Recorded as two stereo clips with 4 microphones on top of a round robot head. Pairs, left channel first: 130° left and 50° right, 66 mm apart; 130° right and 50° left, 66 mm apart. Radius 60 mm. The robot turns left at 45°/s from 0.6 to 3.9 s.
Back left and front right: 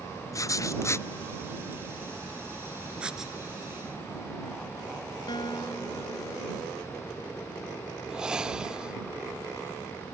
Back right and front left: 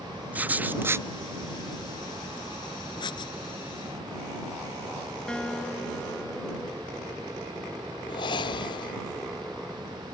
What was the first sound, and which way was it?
Writing, 110° left.